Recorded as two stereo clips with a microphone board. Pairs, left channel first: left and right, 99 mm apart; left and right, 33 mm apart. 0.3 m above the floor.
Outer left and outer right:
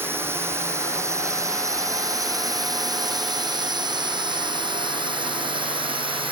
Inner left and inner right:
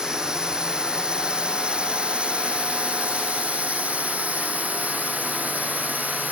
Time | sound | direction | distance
0.0 | a drone | 25° right (ahead or behind) | ?